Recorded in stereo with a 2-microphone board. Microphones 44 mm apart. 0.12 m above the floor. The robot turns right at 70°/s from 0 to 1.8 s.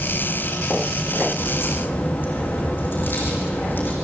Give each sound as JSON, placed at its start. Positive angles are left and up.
{"t": 1.4, "sound": "a crack", "side_deg": 70, "distance_m": 5.5}